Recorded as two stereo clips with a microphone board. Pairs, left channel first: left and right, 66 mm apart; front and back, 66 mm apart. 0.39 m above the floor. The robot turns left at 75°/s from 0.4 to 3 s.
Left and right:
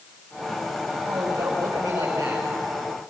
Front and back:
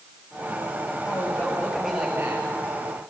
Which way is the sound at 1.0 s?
30° right.